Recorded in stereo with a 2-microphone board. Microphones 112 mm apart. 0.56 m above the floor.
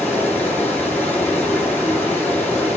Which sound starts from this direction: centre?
Running water, at 0.0 s.